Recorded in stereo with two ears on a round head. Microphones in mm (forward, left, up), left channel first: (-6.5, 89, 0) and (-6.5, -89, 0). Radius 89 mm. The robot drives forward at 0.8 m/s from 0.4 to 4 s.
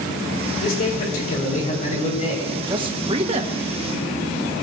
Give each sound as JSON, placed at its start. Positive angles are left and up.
{"t": 0.6, "sound": "a man speaking", "side_deg": 50, "distance_m": 4.5}
{"t": 2.7, "sound": "a man speaking", "side_deg": -25, "distance_m": 1.9}